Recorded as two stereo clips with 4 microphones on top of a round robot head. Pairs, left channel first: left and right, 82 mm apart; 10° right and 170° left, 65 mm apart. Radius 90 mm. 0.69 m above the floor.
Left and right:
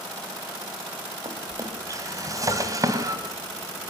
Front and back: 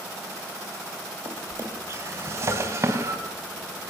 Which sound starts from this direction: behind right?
A drawer, at 1.2 s.